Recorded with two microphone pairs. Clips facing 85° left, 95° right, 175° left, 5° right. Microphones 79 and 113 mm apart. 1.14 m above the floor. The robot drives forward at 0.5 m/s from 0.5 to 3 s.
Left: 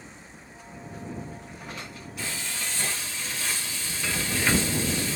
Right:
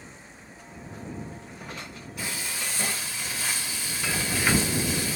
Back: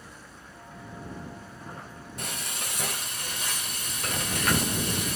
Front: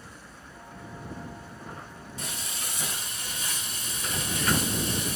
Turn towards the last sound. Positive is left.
turn(degrees=-170)